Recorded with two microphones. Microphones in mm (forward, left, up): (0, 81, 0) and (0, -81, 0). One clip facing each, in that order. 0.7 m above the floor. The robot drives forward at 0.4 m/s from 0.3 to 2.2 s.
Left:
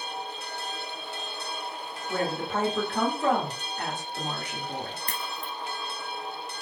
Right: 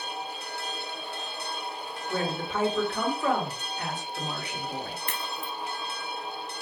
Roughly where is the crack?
Left.